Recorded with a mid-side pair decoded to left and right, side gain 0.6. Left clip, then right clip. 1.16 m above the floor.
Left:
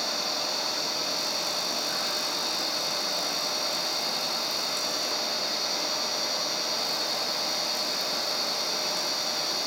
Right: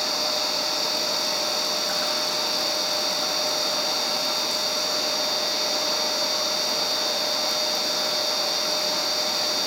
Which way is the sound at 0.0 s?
40° right.